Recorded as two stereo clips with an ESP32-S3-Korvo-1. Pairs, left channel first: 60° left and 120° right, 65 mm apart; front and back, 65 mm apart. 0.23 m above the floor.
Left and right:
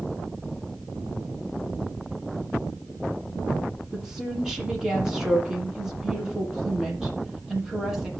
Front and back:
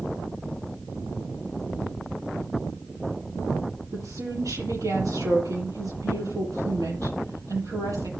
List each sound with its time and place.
3.9 s a woman speaking: 160° left, 7.5 m